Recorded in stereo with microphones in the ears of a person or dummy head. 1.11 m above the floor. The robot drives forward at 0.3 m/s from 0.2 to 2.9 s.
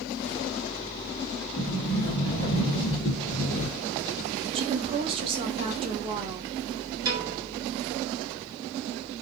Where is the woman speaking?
30° right (ahead or behind), 0.5 m.